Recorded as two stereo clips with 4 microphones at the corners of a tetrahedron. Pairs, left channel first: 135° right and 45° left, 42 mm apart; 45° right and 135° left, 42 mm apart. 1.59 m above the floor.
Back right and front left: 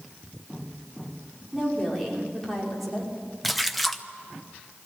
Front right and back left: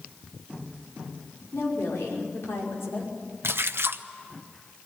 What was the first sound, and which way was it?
A woman speaking, 45° right.